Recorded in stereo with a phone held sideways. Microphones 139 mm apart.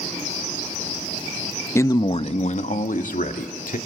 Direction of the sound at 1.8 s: 15° left (ahead or behind).